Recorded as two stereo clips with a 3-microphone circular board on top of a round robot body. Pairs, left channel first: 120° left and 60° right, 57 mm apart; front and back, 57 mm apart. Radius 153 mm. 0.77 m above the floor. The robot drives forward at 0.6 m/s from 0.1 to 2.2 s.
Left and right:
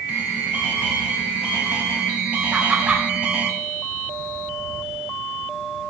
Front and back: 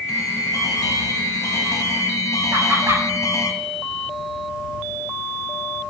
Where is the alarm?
5° left, 4 m.